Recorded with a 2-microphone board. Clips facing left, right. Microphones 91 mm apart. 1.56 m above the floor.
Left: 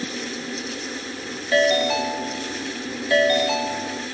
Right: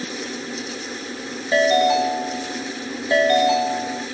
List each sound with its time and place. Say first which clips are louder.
1.5 s a ringtone: right 3 dB; 20° right (ahead or behind), 1.5 m